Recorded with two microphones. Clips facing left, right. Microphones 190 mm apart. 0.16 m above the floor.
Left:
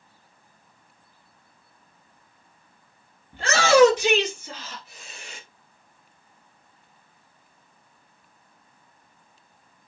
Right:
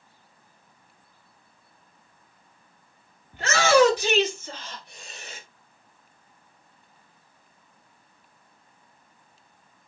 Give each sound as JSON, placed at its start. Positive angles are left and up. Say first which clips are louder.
{"t": 3.3, "sound": "a shout", "louder": "left 2 dB", "side_deg": 30, "distance_m": 2.5}